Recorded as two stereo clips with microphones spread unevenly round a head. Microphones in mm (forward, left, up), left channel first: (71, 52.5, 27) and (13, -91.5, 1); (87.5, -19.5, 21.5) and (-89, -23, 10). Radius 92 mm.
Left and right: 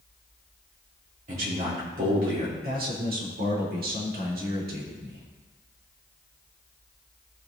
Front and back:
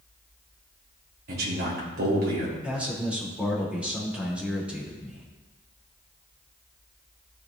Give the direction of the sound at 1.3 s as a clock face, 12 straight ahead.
5 o'clock.